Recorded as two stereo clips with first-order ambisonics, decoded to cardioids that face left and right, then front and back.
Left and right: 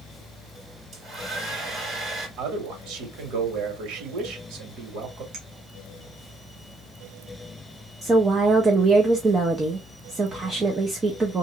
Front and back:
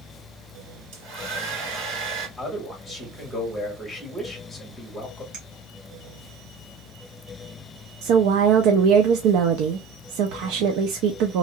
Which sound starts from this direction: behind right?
A clink, at 5.3 s.